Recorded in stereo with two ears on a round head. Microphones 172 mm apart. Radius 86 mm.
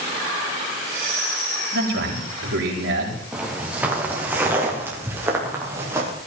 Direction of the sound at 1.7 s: 60° right (ahead or behind).